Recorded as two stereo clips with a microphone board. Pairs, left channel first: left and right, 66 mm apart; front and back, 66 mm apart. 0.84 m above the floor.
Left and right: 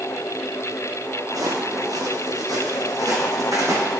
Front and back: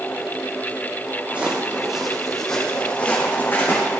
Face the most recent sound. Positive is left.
turn(degrees=-55)